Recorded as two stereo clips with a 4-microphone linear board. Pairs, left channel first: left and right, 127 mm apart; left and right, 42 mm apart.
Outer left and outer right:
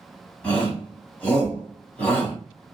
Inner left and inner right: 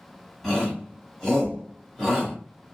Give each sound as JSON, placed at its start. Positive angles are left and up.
{"t": 0.4, "sound": "a shout", "side_deg": 10, "distance_m": 1.7}